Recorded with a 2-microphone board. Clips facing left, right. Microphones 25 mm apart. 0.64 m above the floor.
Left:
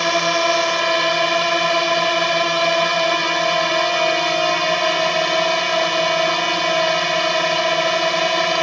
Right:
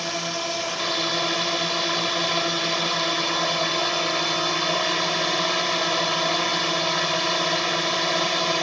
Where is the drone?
50° left (ahead or behind).